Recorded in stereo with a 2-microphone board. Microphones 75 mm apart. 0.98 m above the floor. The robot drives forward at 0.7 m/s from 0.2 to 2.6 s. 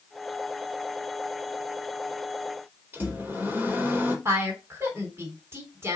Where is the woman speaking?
35° right (ahead or behind), 3.5 m.